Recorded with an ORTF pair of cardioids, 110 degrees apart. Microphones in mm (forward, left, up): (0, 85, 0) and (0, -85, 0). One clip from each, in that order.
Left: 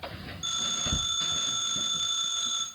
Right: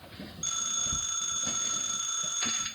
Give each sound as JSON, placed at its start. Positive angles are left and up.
{"t": 0.4, "sound": "a phone ringing", "azimuth_deg": -25, "distance_m": 3.5}